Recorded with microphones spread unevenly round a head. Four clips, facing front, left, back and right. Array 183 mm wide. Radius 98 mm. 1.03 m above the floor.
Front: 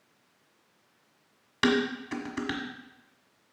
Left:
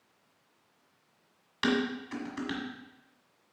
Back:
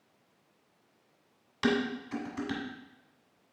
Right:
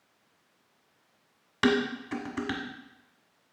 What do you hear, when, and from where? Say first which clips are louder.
1.6 s dishes clattering: right 3 dB, front 3 dB; 40° right, 1.6 m